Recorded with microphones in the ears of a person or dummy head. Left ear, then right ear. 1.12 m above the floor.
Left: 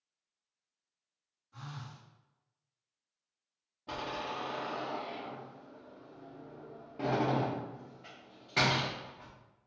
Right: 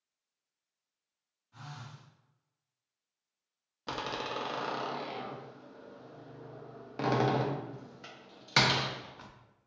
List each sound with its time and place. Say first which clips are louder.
1.5 s a phone buzzing: even; 10° right (ahead or behind), 1.2 m
3.9 s a door slam: right 2 dB; 65° right (ahead or behind), 0.7 m